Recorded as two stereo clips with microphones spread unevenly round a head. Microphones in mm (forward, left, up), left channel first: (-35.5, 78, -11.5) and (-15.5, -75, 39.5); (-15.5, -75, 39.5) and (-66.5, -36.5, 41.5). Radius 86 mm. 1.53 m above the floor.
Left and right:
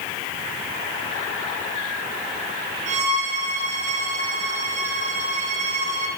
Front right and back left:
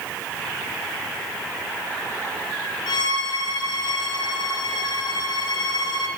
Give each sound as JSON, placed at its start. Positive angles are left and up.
{"t": 2.9, "sound": "a violin", "azimuth_deg": -40, "distance_m": 5.0}